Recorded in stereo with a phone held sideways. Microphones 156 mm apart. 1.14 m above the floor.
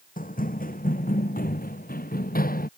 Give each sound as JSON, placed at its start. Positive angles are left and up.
{"t": 0.2, "sound": "running footsteps", "side_deg": 60}